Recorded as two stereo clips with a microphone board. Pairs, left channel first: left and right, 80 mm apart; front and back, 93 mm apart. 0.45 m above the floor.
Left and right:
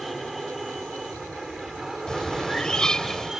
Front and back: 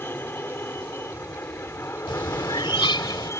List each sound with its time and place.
0.0 s an aircraft: straight ahead; by 3.4 s 10° right
2.1 s a bird: 10° left